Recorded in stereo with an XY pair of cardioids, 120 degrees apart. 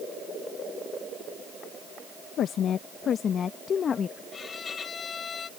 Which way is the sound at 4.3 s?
35° left.